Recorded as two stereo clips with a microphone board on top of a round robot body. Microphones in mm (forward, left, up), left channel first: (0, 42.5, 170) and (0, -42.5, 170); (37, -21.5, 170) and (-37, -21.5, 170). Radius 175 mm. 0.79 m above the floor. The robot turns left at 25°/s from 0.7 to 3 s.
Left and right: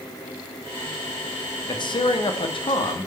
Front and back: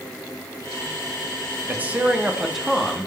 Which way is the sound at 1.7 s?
115° left.